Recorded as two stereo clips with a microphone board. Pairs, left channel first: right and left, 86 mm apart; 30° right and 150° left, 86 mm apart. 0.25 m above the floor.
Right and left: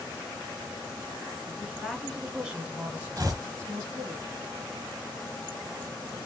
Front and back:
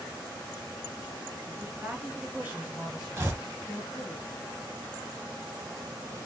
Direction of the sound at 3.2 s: 105° left.